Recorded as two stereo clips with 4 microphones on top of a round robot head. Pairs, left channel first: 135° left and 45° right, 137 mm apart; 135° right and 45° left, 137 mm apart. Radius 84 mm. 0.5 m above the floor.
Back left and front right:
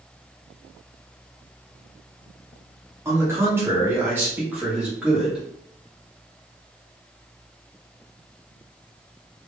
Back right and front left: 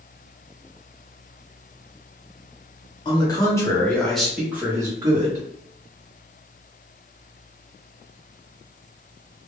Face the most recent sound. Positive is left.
turn(degrees=30)